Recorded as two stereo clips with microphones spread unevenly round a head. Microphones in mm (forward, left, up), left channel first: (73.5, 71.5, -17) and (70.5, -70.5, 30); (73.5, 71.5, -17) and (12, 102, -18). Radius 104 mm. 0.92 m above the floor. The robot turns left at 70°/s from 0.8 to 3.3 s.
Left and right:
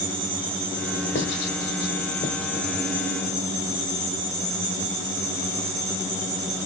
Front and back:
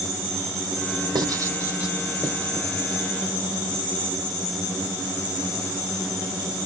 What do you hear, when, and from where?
1.1 s writing: 130° left, 1.4 m; by 2.6 s 25° left, 1.4 m